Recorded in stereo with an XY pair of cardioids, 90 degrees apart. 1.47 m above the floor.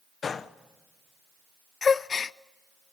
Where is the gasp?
45° left, 0.5 m.